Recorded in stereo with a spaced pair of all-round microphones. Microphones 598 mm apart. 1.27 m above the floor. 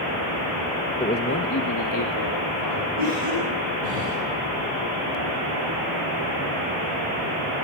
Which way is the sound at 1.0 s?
10° left (ahead or behind).